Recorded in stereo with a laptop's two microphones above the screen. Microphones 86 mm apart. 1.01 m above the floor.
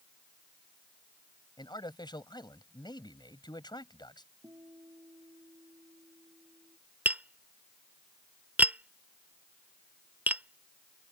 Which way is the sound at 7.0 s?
20° right (ahead or behind).